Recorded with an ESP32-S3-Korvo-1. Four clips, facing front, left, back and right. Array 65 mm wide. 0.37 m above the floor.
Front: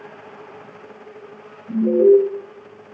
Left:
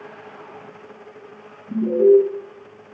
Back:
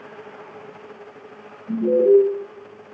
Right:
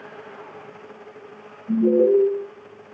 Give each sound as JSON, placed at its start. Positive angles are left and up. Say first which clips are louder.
{"t": 1.7, "sound": "an alarm", "louder": "left 2 dB, front 2 dB", "azimuth_deg": -100, "distance_m": 4.0}